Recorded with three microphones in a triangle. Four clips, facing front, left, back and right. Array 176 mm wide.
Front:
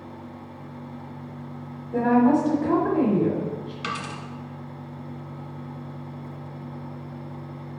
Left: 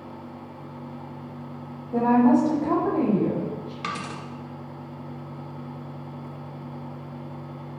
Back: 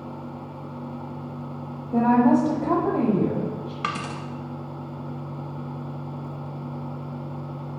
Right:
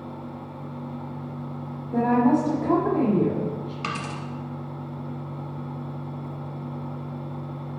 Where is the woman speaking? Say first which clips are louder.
Left 2 dB, back 1 dB; 175° left, 1.2 m.